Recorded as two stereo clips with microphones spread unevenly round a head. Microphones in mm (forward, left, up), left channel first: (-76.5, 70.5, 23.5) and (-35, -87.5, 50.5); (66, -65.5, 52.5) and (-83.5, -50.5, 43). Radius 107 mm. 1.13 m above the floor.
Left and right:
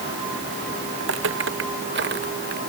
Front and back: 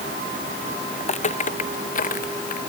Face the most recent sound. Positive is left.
turn(degrees=-30)